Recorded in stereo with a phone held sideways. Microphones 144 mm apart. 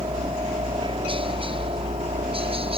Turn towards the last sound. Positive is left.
turn(degrees=-40)  # may be behind; listen again after turning